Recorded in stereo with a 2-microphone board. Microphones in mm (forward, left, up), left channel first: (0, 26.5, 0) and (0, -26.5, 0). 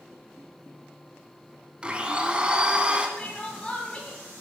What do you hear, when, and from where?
1.8 s a blender: 25° right (ahead or behind), 0.8 m
3.2 s crying: 25° left (ahead or behind), 1.5 m